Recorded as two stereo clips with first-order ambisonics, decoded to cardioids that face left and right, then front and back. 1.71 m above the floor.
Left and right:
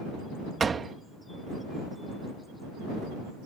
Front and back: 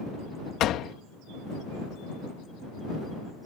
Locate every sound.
0.6 s a door slam: 25° right